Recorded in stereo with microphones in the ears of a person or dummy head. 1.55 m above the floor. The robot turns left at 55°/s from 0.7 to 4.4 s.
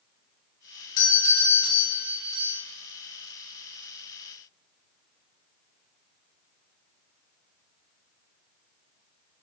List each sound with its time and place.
1.0 s a doorbell: 50° left, 2 m; by 2.6 s 40° right, 2 m